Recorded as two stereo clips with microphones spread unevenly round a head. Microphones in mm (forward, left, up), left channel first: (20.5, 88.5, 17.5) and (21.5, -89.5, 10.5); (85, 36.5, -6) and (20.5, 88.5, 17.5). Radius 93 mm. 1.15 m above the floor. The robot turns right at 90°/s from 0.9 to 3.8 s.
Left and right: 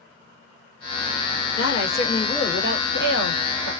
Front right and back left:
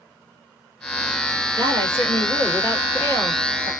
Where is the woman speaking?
110° left, 1.8 m; by 3.7 s 60° right, 1.8 m.